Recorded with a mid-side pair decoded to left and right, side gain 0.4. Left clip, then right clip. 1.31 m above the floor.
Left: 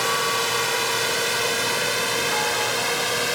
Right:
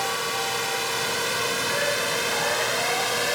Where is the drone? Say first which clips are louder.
Left 4 dB; 35° left; by 3.4 s 15° left.